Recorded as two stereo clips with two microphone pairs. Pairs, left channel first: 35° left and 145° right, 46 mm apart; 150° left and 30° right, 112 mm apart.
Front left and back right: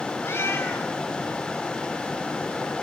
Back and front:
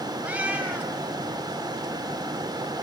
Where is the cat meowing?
45° left, 1.6 m.